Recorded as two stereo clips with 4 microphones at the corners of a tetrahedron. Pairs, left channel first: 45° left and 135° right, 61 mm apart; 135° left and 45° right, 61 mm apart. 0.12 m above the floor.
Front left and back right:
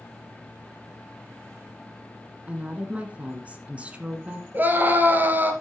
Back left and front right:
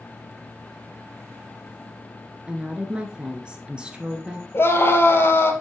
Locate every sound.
2.5 s a woman speaking: 95° right, 1.3 m
4.5 s a scream: 175° left, 2 m